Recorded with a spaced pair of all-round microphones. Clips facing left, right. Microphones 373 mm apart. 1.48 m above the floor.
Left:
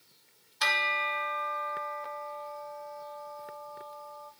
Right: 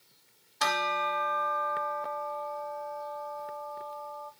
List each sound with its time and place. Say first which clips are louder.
0.6 s a bell: right 5 dB; 65° right (ahead or behind), 0.6 m